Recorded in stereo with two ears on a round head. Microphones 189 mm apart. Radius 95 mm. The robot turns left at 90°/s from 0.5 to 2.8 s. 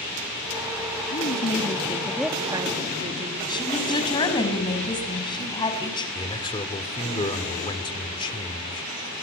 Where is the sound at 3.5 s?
20° left (ahead or behind), 6 m.